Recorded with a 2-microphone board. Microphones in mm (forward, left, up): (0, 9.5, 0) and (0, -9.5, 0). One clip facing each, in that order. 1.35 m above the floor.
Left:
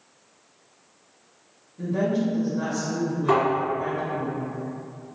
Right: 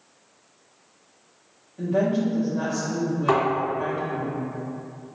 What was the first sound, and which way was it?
A woman speaking, 75° right (ahead or behind).